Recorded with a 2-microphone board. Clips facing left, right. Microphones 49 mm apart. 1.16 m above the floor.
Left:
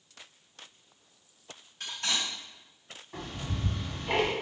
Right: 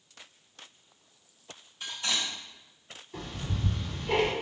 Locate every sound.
1.8 s cutlery clinking: 75° left (ahead or behind), 1.4 m
3.1 s ticking: 70° left (ahead or behind), 1.4 m